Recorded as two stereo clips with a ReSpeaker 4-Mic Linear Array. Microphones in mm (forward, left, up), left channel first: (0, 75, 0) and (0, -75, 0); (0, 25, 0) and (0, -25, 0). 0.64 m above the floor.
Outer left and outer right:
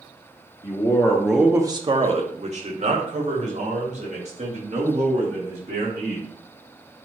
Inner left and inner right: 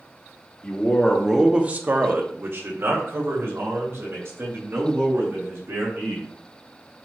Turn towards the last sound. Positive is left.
turn(degrees=-50)  # may be behind; listen again after turning